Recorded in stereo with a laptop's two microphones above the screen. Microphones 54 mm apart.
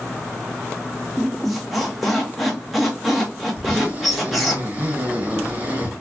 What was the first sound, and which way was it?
A squeak, 5° right (ahead or behind).